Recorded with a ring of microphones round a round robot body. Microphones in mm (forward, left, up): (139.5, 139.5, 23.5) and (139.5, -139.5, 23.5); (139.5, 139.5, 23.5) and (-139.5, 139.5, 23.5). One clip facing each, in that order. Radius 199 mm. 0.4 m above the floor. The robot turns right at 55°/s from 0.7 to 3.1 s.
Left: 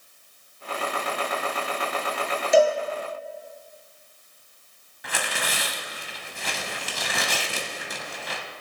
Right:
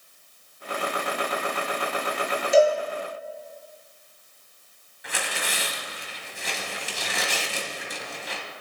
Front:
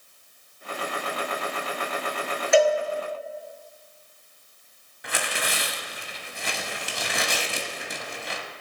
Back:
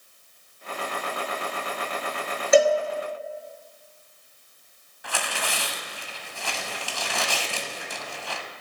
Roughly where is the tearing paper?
Left.